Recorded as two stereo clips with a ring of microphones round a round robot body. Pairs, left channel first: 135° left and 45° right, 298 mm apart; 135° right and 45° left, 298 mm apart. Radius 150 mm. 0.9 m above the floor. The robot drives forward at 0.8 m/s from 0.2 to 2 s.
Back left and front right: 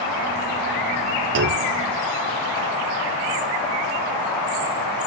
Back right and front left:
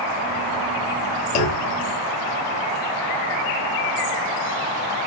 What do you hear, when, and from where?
1.4 s a clunk: 95° right, 0.9 m; by 1.8 s 115° right, 1.0 m